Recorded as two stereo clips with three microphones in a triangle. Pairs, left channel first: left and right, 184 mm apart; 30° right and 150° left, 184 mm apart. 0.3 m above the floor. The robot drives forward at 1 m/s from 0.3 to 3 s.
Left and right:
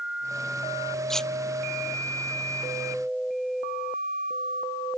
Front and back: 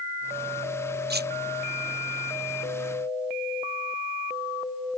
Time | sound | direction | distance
1.1 | cutlery clinking | 175° left | ?